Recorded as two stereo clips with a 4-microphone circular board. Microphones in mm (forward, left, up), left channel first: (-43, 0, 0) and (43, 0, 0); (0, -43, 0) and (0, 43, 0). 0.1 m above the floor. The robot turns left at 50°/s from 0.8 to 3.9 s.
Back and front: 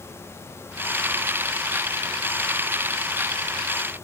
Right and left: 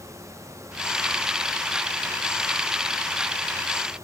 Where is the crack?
No crack in this recording.